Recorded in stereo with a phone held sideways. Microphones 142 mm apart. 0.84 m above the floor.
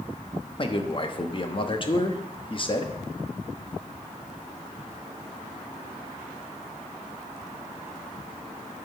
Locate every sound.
0.6 s a man speaking: 35° left (ahead or behind), 1.0 m